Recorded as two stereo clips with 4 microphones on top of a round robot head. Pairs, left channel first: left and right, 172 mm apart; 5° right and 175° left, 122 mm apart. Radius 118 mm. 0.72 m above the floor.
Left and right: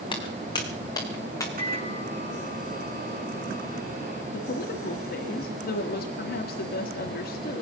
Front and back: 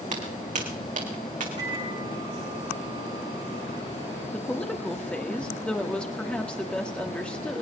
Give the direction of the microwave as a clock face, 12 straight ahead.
4 o'clock.